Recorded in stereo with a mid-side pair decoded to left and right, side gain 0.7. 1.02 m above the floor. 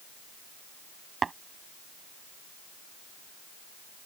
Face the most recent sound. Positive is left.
turn(degrees=-20)